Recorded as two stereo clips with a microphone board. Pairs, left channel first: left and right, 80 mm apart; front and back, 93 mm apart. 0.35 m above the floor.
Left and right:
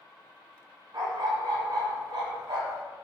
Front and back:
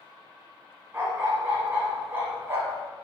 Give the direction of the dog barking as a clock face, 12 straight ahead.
4 o'clock.